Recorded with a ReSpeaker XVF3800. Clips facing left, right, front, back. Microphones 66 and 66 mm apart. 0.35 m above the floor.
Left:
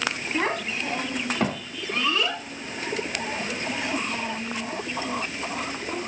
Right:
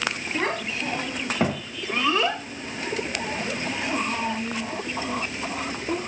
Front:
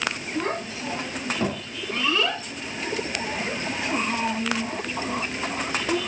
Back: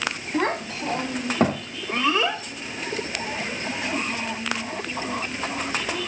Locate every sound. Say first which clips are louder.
0.3 s a child speaking: left 1 dB, back 6 dB; 175° left, 1.5 m; by 6.0 s 30° right, 2.5 m